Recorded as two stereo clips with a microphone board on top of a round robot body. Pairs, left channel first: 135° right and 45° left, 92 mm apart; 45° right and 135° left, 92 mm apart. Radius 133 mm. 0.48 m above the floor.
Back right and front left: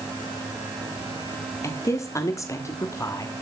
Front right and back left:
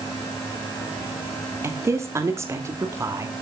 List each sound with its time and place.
1.6 s a woman speaking: straight behind, 1.4 m